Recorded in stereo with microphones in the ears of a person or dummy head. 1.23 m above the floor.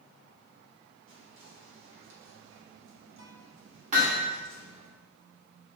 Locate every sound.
1.1 s whispering: 70° right (ahead or behind), 2 m
3.9 s hammering: 40° right (ahead or behind), 1.7 m